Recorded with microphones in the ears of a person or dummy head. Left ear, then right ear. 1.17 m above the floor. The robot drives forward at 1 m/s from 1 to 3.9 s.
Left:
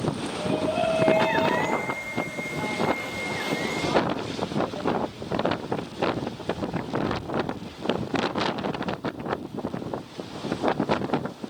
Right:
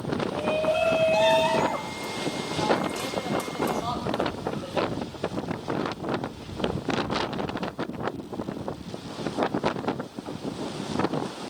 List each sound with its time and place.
0.3 s a shout: 75° right (ahead or behind), 6.5 m; by 4.9 s 80° right, 6.5 m